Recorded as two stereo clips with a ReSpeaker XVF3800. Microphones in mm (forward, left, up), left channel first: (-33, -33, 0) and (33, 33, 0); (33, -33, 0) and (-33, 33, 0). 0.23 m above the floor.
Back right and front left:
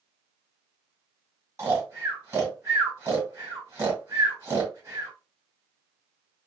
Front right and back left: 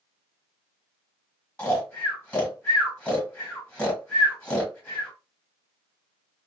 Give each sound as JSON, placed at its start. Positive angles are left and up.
{"t": 1.6, "sound": "snoring", "azimuth_deg": 20, "distance_m": 1.8}